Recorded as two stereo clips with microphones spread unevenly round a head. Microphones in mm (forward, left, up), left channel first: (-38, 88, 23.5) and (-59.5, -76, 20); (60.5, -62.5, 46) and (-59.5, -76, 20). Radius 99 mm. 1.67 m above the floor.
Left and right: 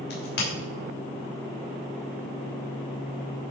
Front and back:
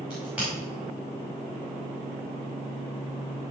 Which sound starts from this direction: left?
A crack, at 0.1 s.